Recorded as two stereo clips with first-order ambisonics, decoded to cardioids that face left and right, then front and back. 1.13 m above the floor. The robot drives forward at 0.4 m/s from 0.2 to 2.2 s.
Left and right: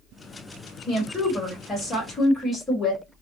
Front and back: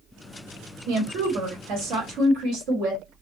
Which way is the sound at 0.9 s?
165° left.